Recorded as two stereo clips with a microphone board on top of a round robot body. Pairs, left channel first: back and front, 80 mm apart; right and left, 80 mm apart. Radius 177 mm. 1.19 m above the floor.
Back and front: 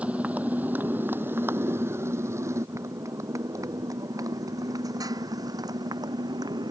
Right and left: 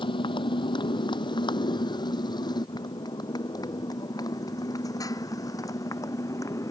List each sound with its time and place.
0.0 s a motorcycle: 75° right; by 6.7 s 40° right